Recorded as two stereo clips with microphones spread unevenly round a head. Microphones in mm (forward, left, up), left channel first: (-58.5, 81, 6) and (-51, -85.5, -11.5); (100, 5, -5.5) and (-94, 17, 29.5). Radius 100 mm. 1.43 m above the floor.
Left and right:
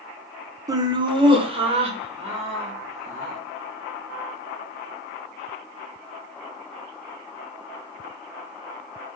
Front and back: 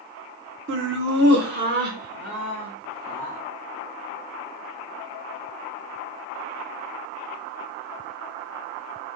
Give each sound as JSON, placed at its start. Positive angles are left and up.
{"t": 0.7, "sound": "laughter", "azimuth_deg": -160, "distance_m": 0.8}